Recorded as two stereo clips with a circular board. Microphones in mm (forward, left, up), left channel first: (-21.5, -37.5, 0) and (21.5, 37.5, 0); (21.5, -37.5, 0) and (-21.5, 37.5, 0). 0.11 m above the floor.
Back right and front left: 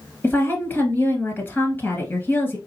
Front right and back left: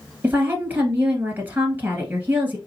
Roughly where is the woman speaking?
Behind.